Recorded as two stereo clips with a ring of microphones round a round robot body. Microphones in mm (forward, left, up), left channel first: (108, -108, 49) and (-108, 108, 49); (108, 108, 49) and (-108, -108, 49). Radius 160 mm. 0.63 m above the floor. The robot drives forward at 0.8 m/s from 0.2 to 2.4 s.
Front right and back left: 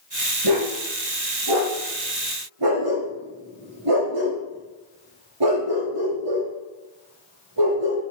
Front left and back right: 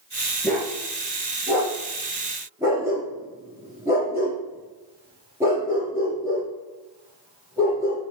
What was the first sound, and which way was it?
A dog barking, 130° left.